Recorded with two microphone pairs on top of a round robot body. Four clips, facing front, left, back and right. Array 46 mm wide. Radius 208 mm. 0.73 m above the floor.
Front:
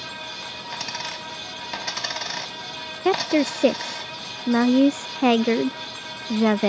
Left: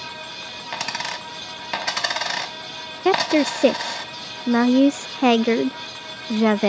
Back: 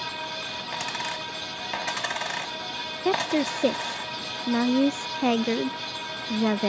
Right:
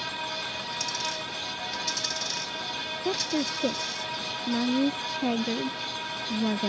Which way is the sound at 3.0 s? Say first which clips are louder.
Left 12 dB, front 4 dB; 65° left.